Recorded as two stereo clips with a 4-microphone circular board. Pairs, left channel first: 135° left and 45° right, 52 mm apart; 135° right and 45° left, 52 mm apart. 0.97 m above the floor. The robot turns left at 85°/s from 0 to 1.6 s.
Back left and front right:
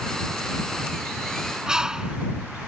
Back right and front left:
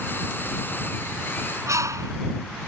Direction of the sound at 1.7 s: 30° left.